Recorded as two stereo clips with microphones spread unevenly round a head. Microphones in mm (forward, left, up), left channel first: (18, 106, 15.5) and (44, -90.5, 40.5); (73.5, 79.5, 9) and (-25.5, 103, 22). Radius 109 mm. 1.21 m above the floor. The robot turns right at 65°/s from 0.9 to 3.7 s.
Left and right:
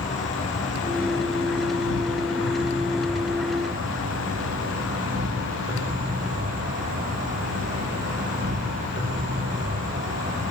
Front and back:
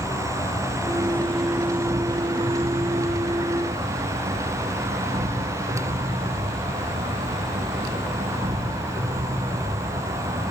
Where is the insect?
45° left, 5.5 m; by 10.5 s 135° right, 5.5 m.